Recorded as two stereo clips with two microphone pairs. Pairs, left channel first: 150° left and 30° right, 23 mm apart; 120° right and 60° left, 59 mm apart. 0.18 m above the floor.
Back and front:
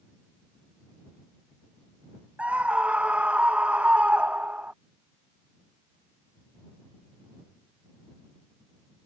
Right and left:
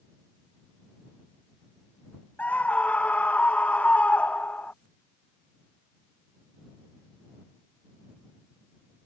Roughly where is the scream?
Ahead right.